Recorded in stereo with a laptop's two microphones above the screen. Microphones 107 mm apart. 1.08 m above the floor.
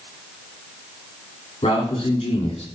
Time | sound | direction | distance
1.6 | a man speaking | 65° left (ahead or behind) | 3 m